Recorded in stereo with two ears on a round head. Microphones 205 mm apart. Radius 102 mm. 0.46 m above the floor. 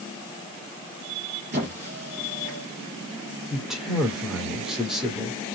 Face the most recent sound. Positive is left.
turn(degrees=0)  # may be behind; listen again after turning